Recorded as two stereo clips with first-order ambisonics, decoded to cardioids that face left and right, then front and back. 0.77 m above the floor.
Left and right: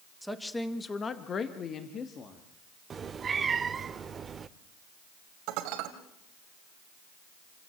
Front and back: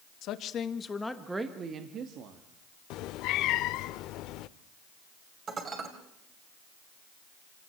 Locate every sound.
0.2 s a woman speaking: straight ahead, 1.4 m; by 2.4 s 145° left, 1.8 m
2.9 s a cat meowing: 25° right, 0.6 m
5.5 s dishes clattering: 115° right, 2.5 m